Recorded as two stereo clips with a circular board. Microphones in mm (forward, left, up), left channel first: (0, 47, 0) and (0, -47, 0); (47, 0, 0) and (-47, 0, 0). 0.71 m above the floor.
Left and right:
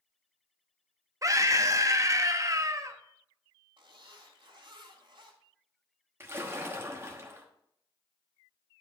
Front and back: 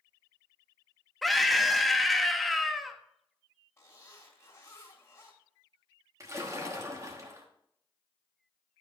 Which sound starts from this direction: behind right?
A splash, at 6.2 s.